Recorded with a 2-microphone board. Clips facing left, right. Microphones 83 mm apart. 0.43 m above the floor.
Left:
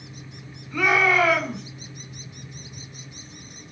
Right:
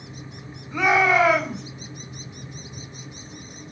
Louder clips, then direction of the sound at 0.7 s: Right 2 dB; 20° right (ahead or behind).